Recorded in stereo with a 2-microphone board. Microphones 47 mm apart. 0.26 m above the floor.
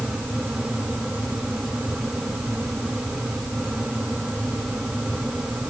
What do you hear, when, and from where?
Only background noise.